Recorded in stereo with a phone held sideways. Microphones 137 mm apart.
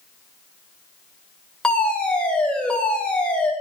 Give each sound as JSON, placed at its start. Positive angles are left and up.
{"t": 1.6, "sound": "a fire alarm", "side_deg": 5, "distance_m": 8.0}